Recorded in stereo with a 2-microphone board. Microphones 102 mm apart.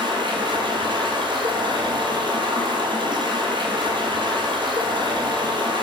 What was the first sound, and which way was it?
Running water, 55° right (ahead or behind).